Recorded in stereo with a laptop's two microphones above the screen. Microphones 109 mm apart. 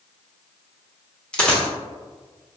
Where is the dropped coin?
10° left (ahead or behind), 0.8 m.